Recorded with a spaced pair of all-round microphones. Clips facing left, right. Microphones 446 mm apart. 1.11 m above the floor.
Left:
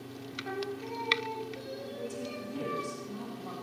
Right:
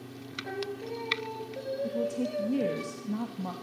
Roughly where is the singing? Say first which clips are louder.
Right 1 dB; left.